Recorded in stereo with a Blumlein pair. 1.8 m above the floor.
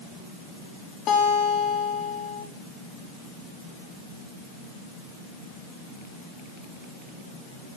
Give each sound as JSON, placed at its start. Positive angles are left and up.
{"t": 1.1, "sound": "a guitar", "azimuth_deg": 30, "distance_m": 3.5}